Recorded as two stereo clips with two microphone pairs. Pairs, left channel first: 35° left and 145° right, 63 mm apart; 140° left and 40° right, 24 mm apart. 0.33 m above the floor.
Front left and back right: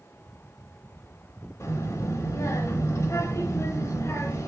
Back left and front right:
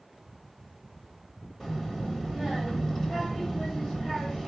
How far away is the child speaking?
About 0.7 m.